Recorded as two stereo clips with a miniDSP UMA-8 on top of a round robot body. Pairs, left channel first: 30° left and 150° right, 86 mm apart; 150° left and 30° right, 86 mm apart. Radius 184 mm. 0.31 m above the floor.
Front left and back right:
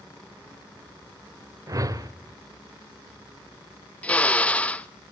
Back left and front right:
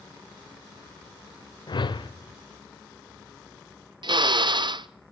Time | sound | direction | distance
1.7 | a whoosh | 165° left | 1.3 m
4.0 | a drill | 45° right | 0.7 m